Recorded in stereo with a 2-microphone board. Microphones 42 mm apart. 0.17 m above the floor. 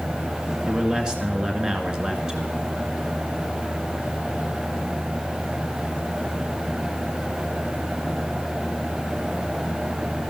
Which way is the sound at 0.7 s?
15° right (ahead or behind).